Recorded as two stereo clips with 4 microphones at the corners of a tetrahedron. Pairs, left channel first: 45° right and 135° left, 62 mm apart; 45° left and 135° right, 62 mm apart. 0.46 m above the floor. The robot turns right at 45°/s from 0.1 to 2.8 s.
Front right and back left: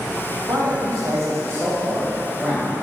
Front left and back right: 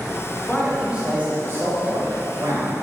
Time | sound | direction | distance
0.5 | a man speaking | 130° left | 1.8 m